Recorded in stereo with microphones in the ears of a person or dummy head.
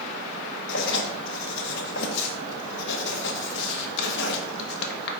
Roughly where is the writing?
Left.